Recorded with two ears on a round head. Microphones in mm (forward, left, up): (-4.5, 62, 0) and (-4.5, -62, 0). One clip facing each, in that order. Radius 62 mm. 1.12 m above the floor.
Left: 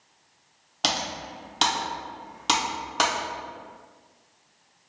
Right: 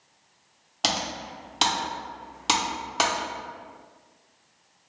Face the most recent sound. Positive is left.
turn(degrees=0)  # may be behind; listen again after turning